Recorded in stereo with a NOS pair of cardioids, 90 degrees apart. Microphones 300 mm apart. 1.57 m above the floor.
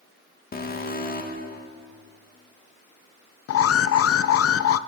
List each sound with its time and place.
0.5 s an alarm: 30° left, 2.5 m
3.5 s an alarm: 55° left, 0.8 m